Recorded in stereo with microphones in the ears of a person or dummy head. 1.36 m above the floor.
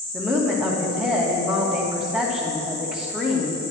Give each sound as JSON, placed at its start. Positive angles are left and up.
{"t": 0.1, "sound": "a woman speaking", "side_deg": -5, "distance_m": 2.0}